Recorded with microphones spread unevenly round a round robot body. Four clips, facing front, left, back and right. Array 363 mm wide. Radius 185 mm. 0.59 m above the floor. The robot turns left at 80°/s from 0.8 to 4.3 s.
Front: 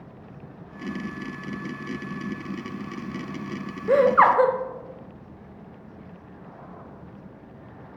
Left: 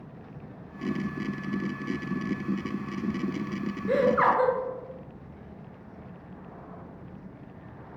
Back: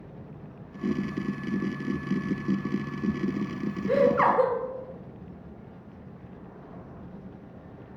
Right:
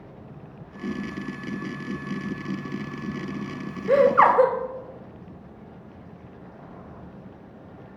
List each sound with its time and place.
3.9 s laughter: 40° right, 0.8 m; by 4.5 s 75° right, 0.8 m